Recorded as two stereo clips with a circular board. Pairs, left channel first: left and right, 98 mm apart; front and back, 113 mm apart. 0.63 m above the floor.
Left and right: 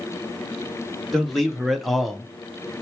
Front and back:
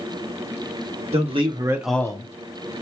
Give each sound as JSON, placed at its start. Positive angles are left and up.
{"t": 1.1, "sound": "a man speaking", "azimuth_deg": 180, "distance_m": 1.0}